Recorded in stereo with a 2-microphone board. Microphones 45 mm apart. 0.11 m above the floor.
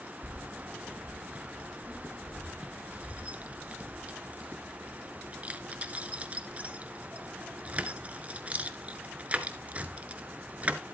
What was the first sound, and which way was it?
Keys jangling, 30° right (ahead or behind).